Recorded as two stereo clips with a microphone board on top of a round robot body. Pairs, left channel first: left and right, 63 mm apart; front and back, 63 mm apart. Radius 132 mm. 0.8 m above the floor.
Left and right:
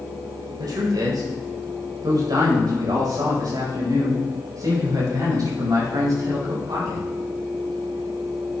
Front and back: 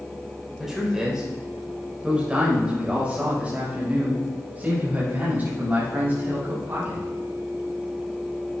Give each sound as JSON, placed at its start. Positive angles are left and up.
{"t": 0.6, "sound": "a man speaking", "azimuth_deg": -95, "distance_m": 4.0}